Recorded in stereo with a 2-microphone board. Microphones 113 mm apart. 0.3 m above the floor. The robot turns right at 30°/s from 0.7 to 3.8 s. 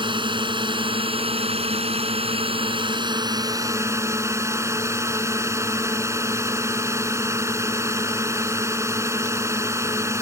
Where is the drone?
125° right; by 10.2 s 30° right.